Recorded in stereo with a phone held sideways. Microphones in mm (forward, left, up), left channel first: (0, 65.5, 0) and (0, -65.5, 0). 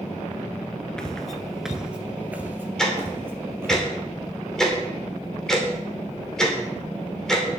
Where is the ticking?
5° left (ahead or behind), 3 m.